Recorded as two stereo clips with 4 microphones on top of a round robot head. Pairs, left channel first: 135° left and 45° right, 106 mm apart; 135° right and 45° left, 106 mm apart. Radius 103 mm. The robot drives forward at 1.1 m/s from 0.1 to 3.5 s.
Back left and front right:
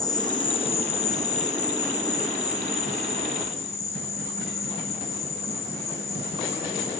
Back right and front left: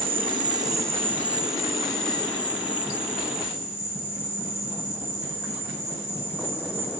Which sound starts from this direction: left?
An insect, at 0.0 s.